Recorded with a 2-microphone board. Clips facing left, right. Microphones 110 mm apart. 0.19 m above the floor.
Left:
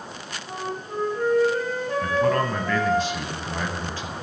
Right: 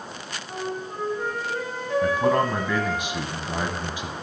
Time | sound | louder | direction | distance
0.5 | a flute | even | 50° left (ahead or behind) | 5.5 m
2.0 | a man speaking | right 1 dB | 15° right (ahead or behind) | 1.0 m